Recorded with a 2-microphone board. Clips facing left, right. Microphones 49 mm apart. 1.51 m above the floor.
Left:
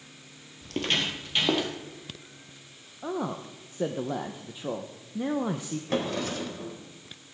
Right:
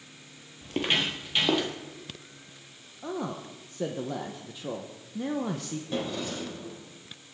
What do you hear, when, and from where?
0.6 s footsteps: 20° right (ahead or behind), 1.8 m; by 1.7 s 5° left (ahead or behind), 2.5 m
3.0 s a man speaking: 20° left (ahead or behind), 0.8 m
5.9 s a drawer: 65° left (ahead or behind), 2.5 m